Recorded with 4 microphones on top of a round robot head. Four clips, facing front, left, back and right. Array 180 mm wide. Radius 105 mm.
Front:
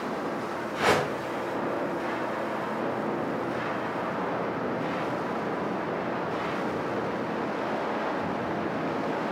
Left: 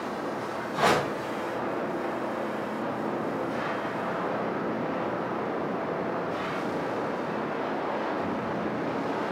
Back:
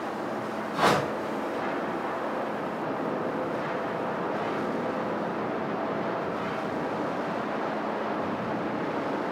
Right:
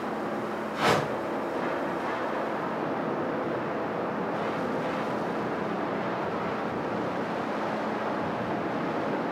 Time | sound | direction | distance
0.7 | a whoosh | 140° left | 6.5 m